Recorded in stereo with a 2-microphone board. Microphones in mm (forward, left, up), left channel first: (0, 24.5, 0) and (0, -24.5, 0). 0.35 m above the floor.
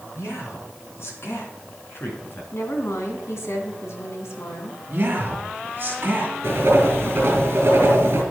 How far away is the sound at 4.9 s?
About 2.5 m.